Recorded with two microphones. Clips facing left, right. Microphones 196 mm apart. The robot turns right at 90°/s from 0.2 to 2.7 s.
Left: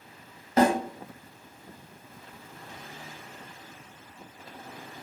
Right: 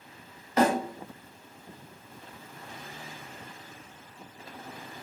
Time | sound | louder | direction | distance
0.6 | a snare drum | left 2 dB | 35° left (ahead or behind) | 1.0 m